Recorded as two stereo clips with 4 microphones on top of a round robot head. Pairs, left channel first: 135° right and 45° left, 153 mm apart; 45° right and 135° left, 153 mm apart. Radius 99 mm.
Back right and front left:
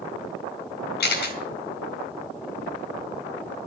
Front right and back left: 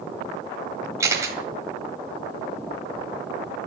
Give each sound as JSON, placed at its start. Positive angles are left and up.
{"t": 1.0, "sound": "a camera shutter", "azimuth_deg": -155, "distance_m": 4.5}